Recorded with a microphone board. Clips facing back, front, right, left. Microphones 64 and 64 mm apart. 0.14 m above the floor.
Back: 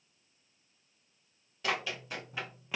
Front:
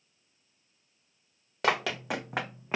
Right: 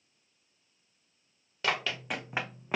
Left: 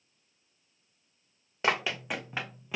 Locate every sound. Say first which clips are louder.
1.6 s running footsteps: front 7 dB, left 3 dB; 30° left, 0.9 m; by 2.8 s 50° right, 0.7 m